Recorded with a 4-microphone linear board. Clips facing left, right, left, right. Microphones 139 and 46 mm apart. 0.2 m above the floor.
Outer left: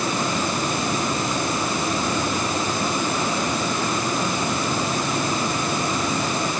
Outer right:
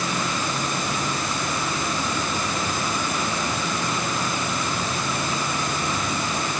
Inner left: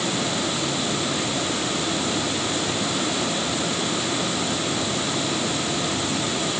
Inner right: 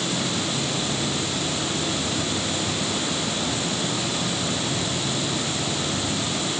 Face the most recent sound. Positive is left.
No sound to turn to.